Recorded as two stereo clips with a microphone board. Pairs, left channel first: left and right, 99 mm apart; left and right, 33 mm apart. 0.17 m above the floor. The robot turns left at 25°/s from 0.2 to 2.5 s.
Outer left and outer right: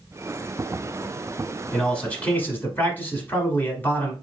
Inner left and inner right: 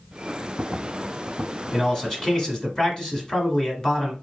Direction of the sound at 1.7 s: 10° left (ahead or behind).